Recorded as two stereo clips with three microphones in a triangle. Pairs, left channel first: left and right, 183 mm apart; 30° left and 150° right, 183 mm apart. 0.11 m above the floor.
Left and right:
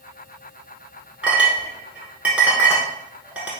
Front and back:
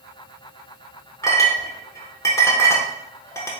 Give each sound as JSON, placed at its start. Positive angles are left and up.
{"t": 1.2, "sound": "a clink", "azimuth_deg": -15, "distance_m": 0.9}